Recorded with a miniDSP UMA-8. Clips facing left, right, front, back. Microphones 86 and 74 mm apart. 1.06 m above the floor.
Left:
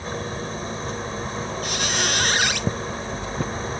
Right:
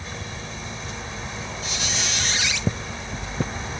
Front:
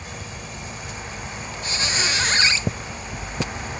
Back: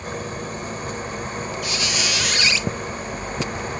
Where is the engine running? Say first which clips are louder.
Left 6 dB, back 7 dB; 140° left.